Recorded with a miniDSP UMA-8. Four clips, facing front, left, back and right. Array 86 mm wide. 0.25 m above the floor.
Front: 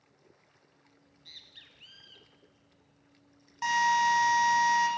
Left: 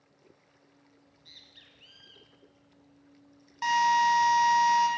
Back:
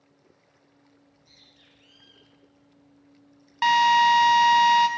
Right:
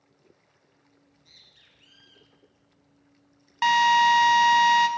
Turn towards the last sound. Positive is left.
turn(degrees=-140)